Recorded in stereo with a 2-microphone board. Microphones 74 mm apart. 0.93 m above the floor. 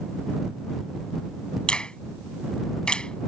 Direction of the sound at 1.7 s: 10° left (ahead or behind).